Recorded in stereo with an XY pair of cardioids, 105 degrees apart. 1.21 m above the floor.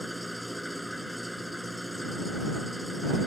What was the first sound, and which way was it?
An engine running, straight ahead.